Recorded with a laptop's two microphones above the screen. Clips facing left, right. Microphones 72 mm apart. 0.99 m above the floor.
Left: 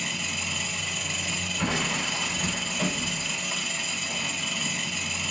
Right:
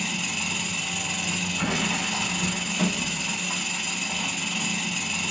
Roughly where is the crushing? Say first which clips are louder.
Even; centre.